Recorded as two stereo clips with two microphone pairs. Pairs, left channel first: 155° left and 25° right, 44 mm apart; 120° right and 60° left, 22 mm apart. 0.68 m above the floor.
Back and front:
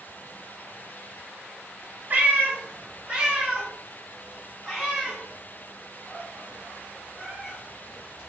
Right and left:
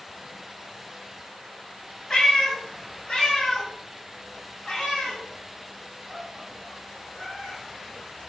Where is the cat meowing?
70° right, 1.1 m; by 8.3 s 135° right, 3.5 m.